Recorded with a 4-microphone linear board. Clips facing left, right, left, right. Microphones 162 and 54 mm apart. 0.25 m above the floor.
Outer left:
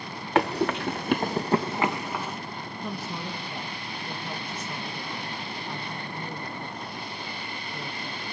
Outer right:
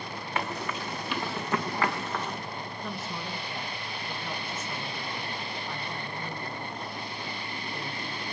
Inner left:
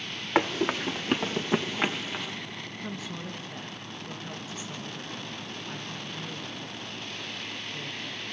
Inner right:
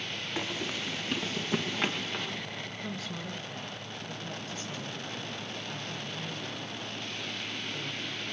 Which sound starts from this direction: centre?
A woman speaking, at 2.8 s.